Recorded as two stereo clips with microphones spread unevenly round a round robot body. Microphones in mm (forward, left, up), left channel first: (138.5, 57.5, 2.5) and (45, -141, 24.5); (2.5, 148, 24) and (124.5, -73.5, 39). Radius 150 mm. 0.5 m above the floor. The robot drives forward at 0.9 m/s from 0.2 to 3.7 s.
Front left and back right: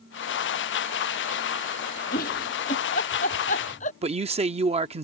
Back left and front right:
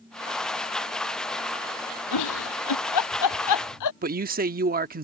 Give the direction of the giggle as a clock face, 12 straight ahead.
8 o'clock.